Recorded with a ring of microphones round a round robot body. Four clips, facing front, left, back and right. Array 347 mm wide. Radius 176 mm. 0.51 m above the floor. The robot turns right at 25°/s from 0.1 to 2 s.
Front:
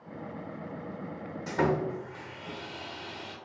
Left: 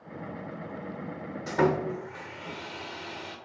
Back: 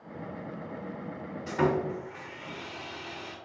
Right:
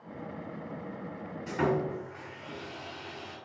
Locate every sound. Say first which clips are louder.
1.5 s sawing: left 3 dB, back 1 dB; 65° left, 0.8 m; by 3.4 s 80° left, 0.8 m